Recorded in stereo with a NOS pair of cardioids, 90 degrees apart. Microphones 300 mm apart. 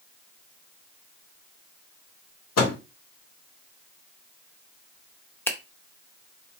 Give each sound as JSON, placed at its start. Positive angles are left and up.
{"t": 2.6, "sound": "a microwave", "azimuth_deg": 60, "distance_m": 1.5}
{"t": 5.5, "sound": "a finger snap", "azimuth_deg": 5, "distance_m": 0.7}